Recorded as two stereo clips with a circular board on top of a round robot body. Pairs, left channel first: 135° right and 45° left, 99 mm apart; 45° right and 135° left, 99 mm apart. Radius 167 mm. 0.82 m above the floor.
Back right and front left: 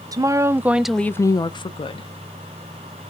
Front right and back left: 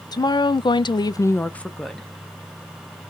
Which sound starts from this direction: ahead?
A woman speaking, at 0.1 s.